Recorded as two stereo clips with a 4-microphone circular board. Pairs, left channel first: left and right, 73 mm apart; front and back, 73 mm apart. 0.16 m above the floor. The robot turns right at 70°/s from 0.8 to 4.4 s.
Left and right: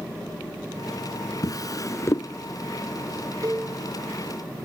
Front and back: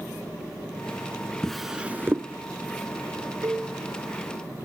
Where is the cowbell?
135° right, 4 m; by 3.7 s 115° right, 4 m.